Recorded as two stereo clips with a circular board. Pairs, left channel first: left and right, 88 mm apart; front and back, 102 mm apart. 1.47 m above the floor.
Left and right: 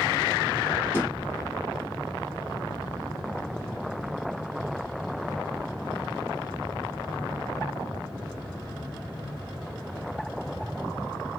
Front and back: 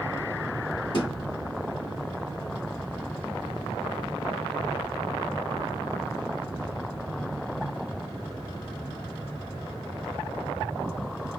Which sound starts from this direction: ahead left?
A thud, at 0.9 s.